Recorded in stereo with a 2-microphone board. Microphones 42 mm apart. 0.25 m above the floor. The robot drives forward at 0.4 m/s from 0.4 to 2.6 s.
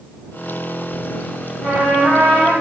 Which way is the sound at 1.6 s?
25° left (ahead or behind).